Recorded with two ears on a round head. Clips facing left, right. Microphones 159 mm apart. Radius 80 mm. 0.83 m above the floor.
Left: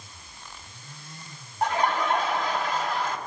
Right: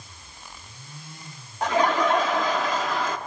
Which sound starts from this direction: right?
Laughter, at 1.6 s.